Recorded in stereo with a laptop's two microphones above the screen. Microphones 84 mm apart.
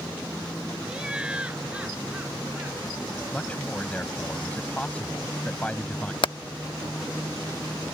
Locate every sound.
0.8 s laughter: 10° right (ahead or behind); by 3.2 s 15° right (ahead or behind)
3.3 s a man speaking: 15° left (ahead or behind)
6.2 s hammering: 70° left (ahead or behind)